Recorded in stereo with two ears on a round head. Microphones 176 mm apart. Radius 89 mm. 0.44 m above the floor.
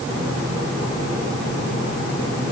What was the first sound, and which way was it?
Only background noise.